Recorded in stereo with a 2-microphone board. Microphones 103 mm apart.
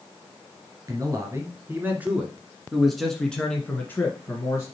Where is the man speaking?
30° right (ahead or behind), 1.9 m; by 4.7 s 30° left (ahead or behind), 1.7 m.